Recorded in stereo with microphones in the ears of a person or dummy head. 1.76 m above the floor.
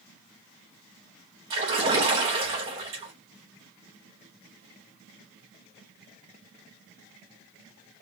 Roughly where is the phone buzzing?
I don't hear a phone buzzing.